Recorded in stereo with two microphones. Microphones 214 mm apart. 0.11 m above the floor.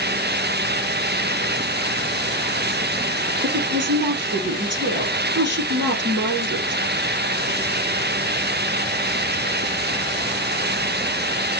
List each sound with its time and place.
3.4 s a woman speaking: 60° right (ahead or behind), 3 m